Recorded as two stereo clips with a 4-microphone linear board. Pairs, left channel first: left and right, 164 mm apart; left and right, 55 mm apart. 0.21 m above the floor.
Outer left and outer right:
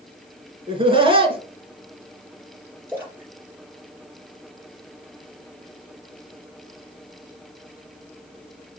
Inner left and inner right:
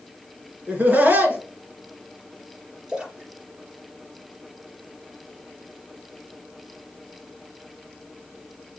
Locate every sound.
0.7 s laughter: 35° right (ahead or behind), 2.5 m
2.9 s a splash: 15° right (ahead or behind), 4.5 m